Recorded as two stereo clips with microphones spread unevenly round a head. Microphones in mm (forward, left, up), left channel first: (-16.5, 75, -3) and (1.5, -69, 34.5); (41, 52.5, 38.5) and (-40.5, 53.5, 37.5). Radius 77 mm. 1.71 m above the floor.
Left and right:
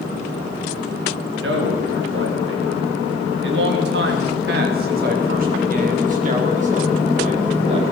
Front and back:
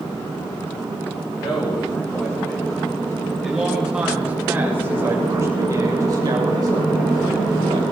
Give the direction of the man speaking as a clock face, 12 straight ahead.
2 o'clock.